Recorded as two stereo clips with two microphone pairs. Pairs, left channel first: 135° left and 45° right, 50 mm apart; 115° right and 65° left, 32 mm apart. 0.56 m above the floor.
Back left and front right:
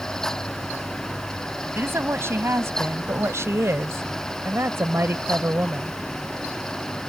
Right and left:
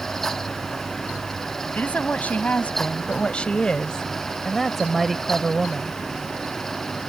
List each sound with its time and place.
1.8 s a woman speaking: 80° right; by 6.0 s straight ahead